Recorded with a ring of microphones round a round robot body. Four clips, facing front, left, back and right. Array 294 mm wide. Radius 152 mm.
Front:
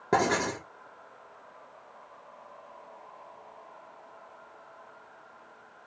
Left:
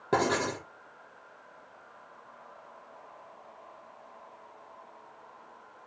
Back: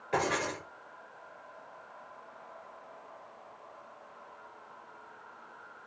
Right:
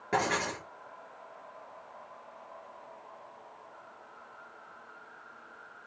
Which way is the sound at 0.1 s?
25° left.